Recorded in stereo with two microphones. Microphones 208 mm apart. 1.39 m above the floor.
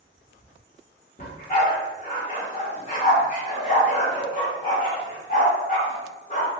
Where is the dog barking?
35° left (ahead or behind), 1.2 m.